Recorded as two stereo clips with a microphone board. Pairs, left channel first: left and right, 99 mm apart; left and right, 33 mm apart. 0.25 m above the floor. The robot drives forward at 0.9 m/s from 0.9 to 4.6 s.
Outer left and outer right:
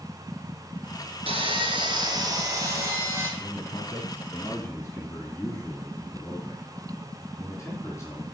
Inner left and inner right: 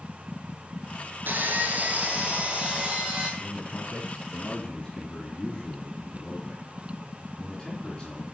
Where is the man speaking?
30° left (ahead or behind), 1.9 m; by 8.2 s 20° left (ahead or behind), 2.5 m.